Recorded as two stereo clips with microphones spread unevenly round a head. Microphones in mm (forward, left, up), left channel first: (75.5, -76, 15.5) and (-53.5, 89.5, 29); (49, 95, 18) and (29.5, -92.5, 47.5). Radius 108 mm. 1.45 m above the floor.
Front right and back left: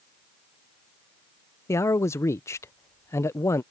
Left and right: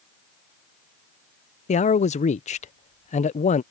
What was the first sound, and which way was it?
A man speaking, 25° left.